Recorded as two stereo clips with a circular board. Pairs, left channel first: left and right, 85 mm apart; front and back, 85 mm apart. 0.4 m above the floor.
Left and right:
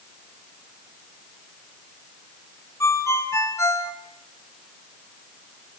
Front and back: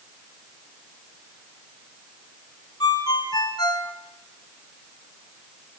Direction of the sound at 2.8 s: 35° left.